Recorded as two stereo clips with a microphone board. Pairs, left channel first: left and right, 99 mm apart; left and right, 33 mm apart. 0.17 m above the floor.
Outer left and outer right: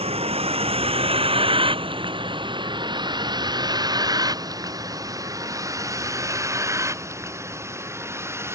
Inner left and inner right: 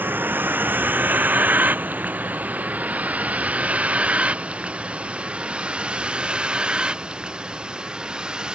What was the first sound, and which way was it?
A vehicle, 85° right.